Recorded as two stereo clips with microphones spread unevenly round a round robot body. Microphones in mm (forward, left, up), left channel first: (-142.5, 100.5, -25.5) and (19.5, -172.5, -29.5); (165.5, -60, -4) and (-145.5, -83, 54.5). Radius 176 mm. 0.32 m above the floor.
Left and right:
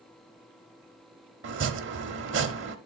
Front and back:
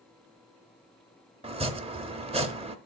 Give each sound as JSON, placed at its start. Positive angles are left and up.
{"t": 1.4, "sound": "chopping", "azimuth_deg": -100, "distance_m": 0.8}